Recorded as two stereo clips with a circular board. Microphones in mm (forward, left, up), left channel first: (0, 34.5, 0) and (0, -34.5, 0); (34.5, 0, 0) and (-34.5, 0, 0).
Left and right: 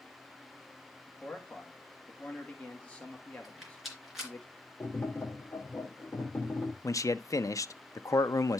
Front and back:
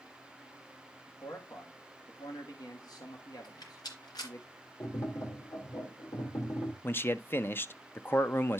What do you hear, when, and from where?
1.1 s a man speaking: 20° left, 1.6 m
3.4 s a rattle: straight ahead, 3 m
4.8 s tapping: 30° left, 2.5 m
6.8 s a man speaking: 55° left, 0.5 m